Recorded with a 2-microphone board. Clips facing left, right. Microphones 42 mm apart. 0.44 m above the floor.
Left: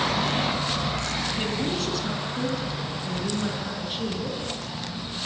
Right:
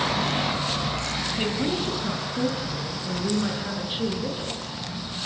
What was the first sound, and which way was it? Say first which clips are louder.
A woman speaking: right 4 dB; 10° right (ahead or behind).